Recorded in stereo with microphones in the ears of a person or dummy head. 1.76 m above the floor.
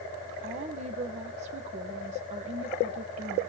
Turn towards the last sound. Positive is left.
turn(degrees=-40)  # may be behind; listen again after turning